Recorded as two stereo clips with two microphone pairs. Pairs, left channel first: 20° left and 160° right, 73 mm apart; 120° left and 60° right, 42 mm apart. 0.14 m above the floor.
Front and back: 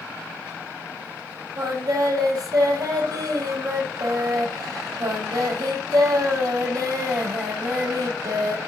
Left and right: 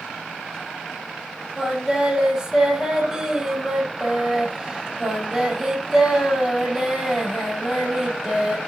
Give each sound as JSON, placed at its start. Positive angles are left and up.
{"t": 1.6, "sound": "singing", "azimuth_deg": -135, "distance_m": 5.0}